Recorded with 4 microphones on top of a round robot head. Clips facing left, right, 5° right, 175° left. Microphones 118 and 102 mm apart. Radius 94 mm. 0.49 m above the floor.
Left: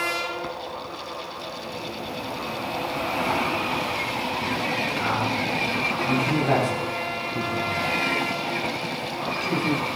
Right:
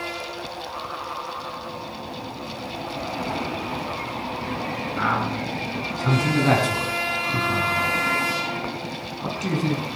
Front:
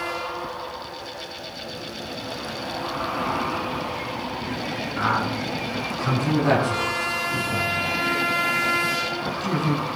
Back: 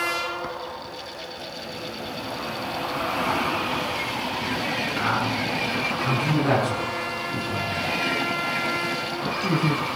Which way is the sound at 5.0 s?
75° right.